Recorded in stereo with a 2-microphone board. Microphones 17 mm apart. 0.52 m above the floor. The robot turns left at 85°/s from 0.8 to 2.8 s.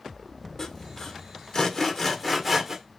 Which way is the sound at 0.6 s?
30° left (ahead or behind).